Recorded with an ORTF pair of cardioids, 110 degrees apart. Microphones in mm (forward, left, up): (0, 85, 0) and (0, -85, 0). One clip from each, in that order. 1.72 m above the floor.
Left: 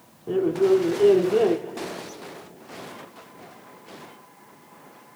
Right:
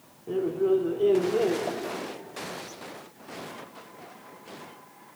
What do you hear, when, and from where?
0.3 s a man speaking: 20° left, 0.7 m
1.7 s tapping: 70° right, 7.5 m